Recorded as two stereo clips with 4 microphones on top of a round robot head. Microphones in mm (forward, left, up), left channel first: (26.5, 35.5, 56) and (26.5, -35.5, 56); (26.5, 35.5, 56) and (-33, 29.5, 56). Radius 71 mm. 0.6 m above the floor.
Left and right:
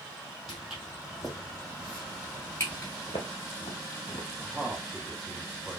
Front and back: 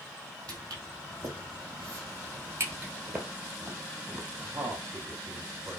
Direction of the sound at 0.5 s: 175° right.